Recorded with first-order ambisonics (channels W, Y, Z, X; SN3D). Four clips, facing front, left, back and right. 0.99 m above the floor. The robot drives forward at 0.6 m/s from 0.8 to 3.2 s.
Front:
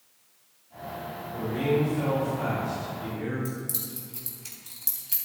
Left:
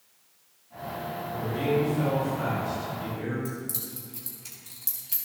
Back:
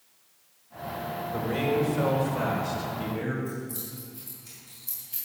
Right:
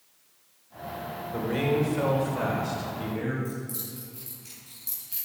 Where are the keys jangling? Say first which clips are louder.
Even, even; 25° left, 4 m.